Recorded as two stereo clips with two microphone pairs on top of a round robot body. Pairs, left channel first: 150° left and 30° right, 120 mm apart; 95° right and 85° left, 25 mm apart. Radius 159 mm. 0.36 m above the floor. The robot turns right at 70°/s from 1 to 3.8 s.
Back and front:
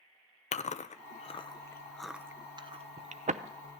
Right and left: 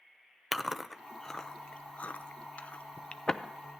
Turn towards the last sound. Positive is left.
turn(degrees=5)